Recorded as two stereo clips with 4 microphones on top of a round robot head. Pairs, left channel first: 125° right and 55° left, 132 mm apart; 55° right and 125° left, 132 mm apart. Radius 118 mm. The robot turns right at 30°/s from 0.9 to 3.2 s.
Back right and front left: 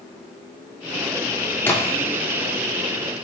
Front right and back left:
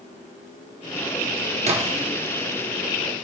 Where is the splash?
160° left, 1.1 m; by 2.1 s 175° left, 1.1 m.